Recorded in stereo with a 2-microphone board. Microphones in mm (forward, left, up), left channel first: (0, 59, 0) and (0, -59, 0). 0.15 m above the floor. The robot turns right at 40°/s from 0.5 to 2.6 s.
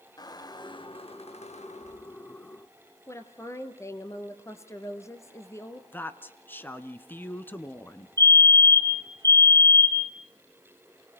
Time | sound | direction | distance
0.2 | a squeak | 35° left | 0.8 m
3.1 | a woman speaking | 25° left (ahead or behind) | 2 m
5.9 | a woman speaking | 20° left (ahead or behind) | 1.3 m
8.2 | a fire alarm | 35° right (ahead or behind) | 2.5 m